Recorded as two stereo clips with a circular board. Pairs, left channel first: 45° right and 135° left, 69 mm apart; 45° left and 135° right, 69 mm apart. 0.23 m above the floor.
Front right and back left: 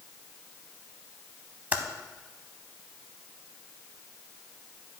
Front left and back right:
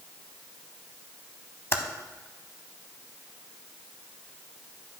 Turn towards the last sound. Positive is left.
turn(degrees=80)